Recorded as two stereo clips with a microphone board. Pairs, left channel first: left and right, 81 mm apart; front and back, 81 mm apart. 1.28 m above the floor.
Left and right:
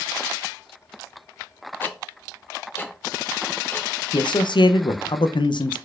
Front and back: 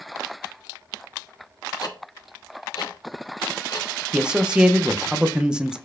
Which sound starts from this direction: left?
A man speaking, at 4.1 s.